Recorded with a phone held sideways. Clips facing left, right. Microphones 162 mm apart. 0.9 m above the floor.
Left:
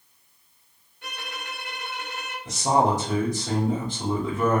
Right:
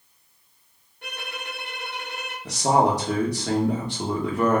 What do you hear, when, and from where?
1.0 s a violin: 55° right (ahead or behind), 1.9 m
2.5 s a man speaking: 75° right (ahead or behind), 1.4 m